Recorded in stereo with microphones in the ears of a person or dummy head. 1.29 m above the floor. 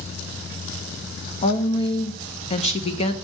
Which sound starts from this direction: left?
A woman speaking, at 1.4 s.